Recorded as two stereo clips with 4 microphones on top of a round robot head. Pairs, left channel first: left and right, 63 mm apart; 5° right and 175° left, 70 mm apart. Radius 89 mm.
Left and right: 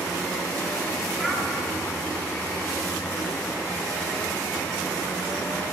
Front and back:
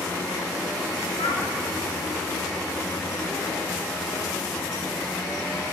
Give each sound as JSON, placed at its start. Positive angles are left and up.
{"t": 1.2, "sound": "a child speaking", "azimuth_deg": 10, "distance_m": 6.5}